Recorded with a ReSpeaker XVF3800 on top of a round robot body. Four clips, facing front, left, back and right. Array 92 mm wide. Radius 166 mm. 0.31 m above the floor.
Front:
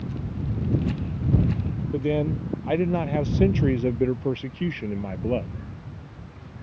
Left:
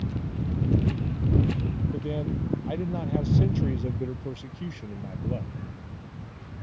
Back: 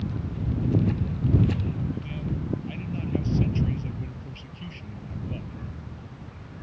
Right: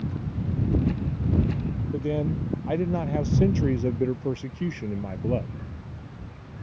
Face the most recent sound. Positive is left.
turn(degrees=-25)